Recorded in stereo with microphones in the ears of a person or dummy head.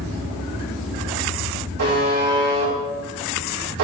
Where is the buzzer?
65° right (ahead or behind), 3.5 m.